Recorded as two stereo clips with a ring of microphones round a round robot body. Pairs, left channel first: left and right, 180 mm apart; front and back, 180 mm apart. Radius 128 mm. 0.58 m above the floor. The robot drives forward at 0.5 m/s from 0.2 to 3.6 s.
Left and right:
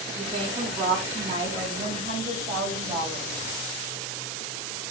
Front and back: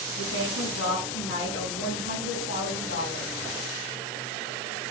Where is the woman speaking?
30° right, 4.5 m; by 3.3 s 40° right, 3.5 m.